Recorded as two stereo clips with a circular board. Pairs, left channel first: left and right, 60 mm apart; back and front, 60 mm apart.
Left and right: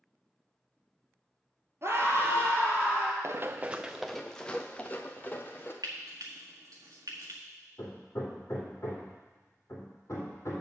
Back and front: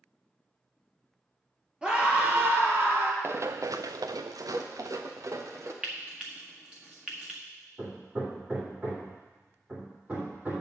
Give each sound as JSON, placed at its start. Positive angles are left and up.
{"t": 1.8, "sound": "a scream", "azimuth_deg": -70, "distance_m": 2.0}
{"t": 3.2, "sound": "running footsteps", "azimuth_deg": -50, "distance_m": 0.6}
{"t": 5.8, "sound": "frying", "azimuth_deg": -70, "distance_m": 1.6}
{"t": 7.8, "sound": "hammering", "azimuth_deg": 60, "distance_m": 2.5}